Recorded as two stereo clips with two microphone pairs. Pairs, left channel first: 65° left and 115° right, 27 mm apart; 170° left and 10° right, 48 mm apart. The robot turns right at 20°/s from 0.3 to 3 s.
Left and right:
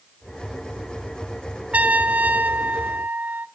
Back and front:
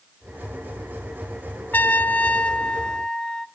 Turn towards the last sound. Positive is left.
turn(degrees=-115)